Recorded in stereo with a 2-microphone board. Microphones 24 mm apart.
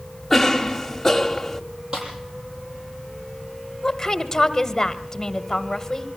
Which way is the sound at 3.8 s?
20° left (ahead or behind).